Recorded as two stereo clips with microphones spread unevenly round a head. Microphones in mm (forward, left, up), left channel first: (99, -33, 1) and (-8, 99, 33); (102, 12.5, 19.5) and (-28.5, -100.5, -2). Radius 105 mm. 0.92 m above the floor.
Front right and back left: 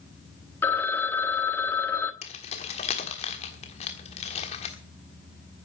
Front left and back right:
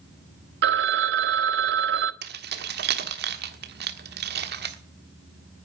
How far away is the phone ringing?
About 0.6 m.